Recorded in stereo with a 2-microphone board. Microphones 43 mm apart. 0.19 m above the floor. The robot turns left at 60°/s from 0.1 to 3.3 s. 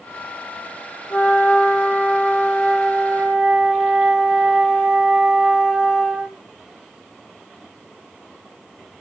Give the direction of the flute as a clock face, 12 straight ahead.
8 o'clock.